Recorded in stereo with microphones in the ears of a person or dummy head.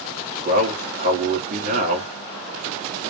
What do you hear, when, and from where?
0.5 s a man speaking: 40° right (ahead or behind), 1.0 m